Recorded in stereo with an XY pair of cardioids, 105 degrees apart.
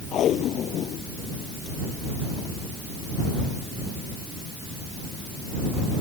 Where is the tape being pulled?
65° left.